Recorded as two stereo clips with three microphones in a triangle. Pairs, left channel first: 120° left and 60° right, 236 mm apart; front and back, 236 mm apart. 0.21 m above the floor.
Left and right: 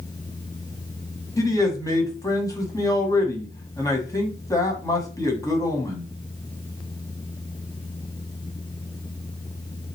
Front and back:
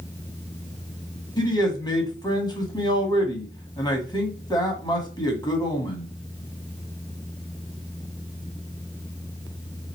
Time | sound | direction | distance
1.4 | a man speaking | 55° left | 1.4 m